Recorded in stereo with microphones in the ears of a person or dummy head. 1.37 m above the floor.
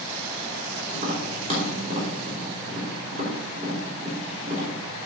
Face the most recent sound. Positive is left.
turn(degrees=-45)  # may be behind; listen again after turning